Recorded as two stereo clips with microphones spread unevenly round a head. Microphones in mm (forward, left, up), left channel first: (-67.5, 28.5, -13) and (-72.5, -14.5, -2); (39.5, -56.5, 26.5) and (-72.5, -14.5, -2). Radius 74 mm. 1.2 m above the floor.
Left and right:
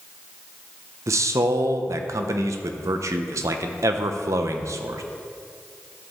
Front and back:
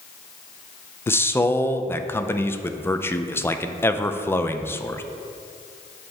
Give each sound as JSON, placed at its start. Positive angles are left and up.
{"t": 1.1, "sound": "a man speaking", "azimuth_deg": -95, "distance_m": 0.6}